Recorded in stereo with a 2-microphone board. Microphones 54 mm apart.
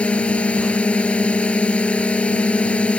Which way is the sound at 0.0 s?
25° left (ahead or behind).